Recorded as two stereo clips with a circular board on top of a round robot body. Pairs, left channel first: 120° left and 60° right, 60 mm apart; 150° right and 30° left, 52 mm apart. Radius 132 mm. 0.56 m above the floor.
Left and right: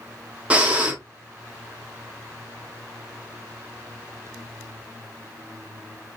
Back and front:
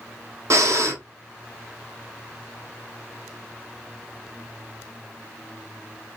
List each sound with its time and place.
0.5 s breathing: 10° left, 1.1 m